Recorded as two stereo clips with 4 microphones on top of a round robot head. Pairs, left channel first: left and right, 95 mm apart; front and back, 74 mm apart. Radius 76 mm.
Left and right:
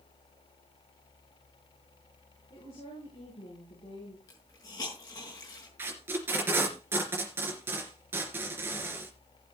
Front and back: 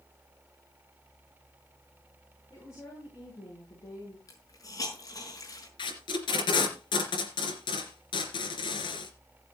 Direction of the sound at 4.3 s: 35° left.